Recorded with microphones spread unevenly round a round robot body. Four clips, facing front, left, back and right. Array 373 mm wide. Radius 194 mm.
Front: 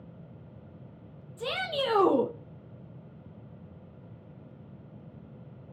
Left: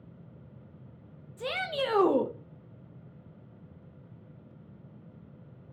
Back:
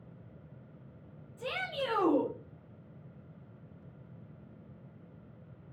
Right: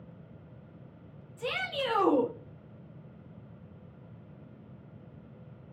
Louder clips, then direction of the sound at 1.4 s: Left 2 dB, front 5 dB; 20° left.